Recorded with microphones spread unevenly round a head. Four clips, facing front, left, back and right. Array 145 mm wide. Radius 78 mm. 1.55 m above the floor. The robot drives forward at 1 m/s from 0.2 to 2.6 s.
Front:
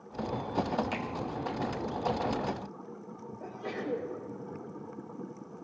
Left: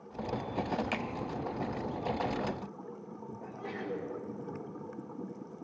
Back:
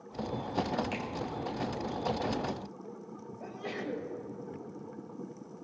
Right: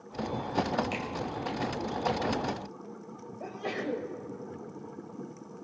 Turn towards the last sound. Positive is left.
turn(degrees=-95)